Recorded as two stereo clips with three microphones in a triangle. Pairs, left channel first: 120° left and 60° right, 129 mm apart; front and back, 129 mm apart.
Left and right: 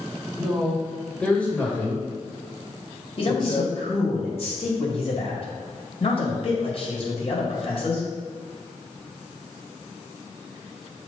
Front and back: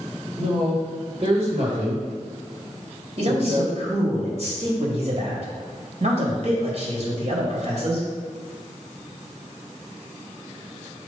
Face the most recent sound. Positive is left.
turn(degrees=155)